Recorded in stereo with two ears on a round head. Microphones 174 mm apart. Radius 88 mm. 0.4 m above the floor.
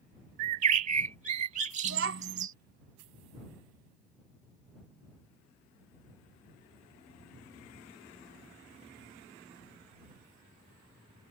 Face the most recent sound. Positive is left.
turn(degrees=-65)  # may be behind; listen again after turning